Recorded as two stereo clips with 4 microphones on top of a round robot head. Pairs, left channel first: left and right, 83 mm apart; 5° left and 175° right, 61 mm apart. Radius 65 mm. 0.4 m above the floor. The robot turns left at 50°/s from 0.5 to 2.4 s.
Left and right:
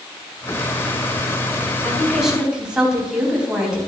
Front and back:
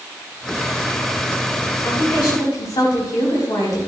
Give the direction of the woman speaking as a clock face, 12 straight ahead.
11 o'clock.